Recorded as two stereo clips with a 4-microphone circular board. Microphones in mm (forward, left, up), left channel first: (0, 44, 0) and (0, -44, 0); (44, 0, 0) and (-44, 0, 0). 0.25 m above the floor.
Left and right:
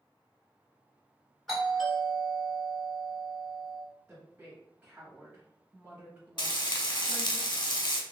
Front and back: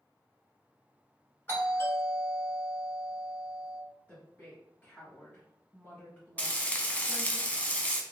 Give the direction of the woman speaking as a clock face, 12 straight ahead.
1 o'clock.